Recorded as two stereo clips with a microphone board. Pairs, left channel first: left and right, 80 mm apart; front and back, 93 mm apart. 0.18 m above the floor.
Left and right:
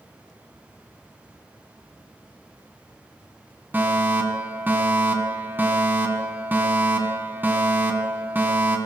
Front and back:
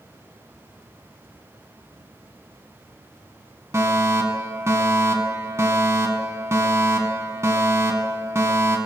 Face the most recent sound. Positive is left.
turn(degrees=-140)